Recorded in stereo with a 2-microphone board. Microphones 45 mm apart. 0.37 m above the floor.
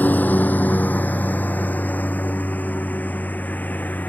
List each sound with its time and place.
0.0 s a lawn mower: 40° left (ahead or behind)